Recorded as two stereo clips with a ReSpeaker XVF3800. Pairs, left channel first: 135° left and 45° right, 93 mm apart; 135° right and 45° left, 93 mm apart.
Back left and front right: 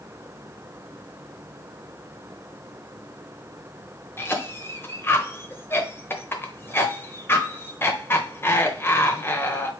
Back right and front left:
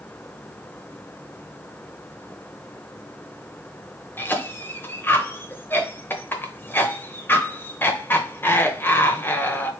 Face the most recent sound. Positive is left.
turn(degrees=180)